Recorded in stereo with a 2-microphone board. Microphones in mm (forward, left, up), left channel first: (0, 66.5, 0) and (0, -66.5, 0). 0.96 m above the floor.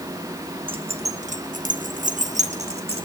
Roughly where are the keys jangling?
Right.